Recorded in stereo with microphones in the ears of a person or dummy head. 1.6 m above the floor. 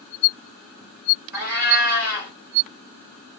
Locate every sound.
1.3 s a cat meowing: 20° right (ahead or behind), 2.5 m